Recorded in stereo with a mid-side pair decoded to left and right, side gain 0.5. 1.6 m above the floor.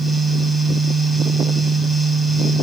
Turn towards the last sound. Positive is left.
turn(degrees=-5)